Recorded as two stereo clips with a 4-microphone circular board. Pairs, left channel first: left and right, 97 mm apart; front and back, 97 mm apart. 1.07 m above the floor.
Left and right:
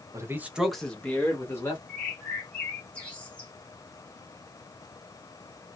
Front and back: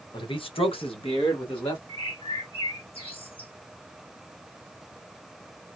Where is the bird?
15° left, 1.9 m.